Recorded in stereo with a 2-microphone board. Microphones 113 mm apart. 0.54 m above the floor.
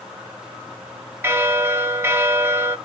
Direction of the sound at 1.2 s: 20° right (ahead or behind).